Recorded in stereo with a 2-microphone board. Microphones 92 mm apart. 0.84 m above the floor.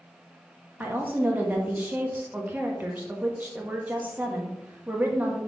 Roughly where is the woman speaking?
Centre.